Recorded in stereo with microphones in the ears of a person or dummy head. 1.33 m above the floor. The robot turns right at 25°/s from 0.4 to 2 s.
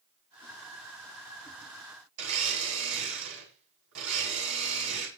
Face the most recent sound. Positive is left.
turn(degrees=-75)  # may be behind; listen again after turning